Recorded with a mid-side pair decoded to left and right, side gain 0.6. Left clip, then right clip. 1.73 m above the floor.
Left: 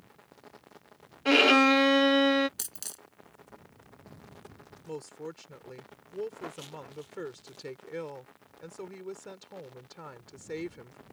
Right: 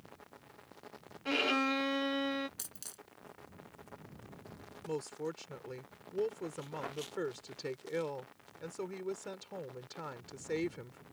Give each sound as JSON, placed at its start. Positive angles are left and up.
{"t": 1.2, "sound": "a violin", "azimuth_deg": 50}
{"t": 2.6, "sound": "a dropped coin", "azimuth_deg": 40}
{"t": 4.8, "sound": "a woman speaking", "azimuth_deg": -5}